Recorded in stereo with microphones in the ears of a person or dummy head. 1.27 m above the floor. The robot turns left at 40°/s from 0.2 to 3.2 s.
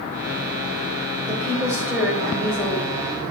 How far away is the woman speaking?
About 5 m.